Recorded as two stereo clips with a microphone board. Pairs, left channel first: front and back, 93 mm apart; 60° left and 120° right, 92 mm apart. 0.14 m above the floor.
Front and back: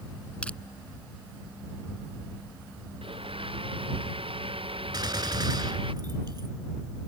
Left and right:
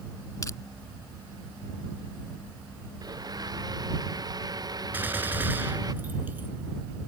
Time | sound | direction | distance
0.4 | crushing | 70° left | ?
3.0 | a blender | 165° right | ?
4.9 | a gunshot | 175° left | ?